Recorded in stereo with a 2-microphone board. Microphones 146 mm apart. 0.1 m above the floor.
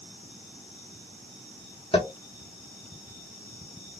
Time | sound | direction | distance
1.9 | tapping | 40° left (ahead or behind) | 1.2 m